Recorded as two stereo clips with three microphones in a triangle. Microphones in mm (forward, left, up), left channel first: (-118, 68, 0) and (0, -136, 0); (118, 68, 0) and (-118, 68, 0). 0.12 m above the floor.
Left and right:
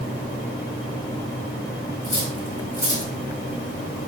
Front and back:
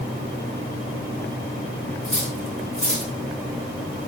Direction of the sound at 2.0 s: 130° left.